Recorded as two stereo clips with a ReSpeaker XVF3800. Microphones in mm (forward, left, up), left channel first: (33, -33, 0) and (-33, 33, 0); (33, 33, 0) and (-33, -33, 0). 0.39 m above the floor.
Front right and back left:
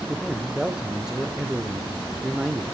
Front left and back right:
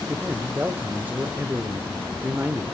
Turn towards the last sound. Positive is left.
turn(degrees=-150)